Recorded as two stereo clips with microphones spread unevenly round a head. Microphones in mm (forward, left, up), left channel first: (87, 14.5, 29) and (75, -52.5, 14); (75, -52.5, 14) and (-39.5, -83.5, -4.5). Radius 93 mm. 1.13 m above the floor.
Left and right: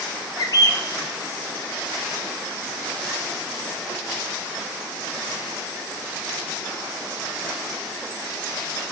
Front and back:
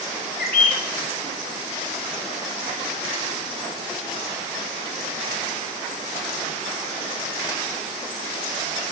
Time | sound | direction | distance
0.4 | a bird | 45° left | 0.8 m